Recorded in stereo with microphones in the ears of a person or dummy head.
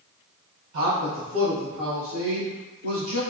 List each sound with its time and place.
0.7 s a man speaking: 80° right, 0.6 m; by 3.2 s 75° right (ahead or behind), 3 m